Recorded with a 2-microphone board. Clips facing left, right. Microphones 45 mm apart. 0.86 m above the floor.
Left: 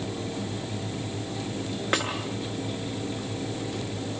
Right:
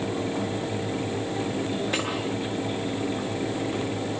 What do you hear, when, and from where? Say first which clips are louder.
1.9 s a snare drum: left 5 dB; 55° left (ahead or behind), 7 m